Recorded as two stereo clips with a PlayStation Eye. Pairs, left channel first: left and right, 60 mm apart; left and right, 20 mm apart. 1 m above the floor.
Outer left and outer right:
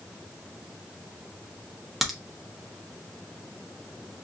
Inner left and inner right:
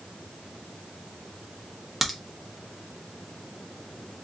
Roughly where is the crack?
Centre.